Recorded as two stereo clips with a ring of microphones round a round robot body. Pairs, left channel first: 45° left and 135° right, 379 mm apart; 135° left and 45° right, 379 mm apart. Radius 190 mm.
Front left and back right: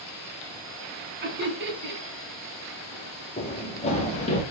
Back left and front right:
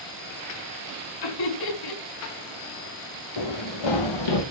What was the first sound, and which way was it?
Laughter, 165° left.